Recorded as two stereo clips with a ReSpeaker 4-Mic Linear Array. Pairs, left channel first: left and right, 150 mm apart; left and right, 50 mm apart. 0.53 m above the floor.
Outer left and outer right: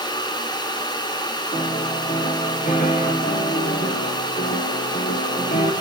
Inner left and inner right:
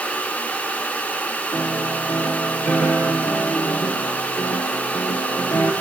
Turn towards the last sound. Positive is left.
turn(degrees=65)  # may be behind; listen again after turning